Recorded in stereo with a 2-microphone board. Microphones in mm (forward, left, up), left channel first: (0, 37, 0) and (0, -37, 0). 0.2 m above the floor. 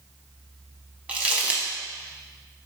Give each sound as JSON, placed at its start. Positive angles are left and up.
{"t": 1.1, "sound": "crumpling", "side_deg": -20, "distance_m": 0.7}